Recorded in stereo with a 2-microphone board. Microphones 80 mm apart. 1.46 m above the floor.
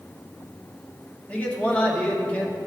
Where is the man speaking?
15° left (ahead or behind), 1.1 m.